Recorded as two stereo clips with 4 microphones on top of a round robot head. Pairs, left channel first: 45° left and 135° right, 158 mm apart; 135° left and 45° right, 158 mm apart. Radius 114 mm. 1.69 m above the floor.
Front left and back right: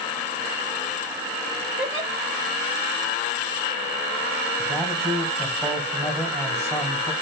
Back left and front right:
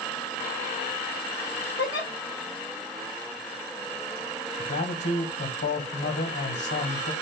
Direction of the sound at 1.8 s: 145° left.